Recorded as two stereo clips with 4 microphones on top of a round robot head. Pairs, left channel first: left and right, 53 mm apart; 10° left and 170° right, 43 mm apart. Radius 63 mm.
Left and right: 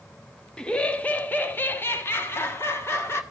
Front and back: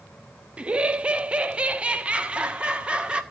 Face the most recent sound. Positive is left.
turn(degrees=125)